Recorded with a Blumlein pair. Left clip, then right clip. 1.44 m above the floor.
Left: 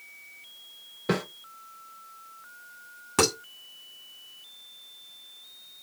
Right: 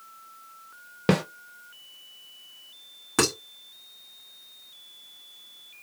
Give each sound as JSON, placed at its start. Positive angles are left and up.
{"t": 1.1, "sound": "a snare drum", "azimuth_deg": -40, "distance_m": 0.9}
{"t": 3.2, "sound": "dishes clattering", "azimuth_deg": -5, "distance_m": 2.5}